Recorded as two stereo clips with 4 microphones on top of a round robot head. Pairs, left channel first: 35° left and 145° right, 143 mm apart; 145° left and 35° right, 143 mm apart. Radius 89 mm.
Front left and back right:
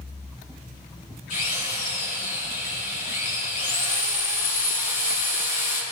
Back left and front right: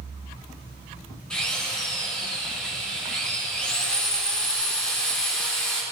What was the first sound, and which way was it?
A drill, 65° left.